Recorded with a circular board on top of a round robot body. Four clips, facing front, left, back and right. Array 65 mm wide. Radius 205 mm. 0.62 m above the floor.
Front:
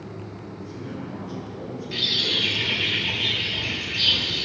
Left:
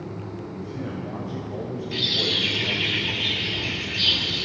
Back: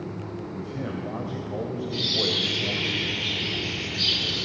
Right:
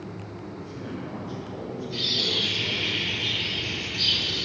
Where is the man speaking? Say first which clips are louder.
Left 3 dB, back 2 dB; 160° left, 4.5 m.